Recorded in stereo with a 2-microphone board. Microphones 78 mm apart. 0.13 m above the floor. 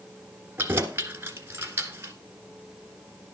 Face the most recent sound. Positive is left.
turn(degrees=-30)  # may be behind; listen again after turning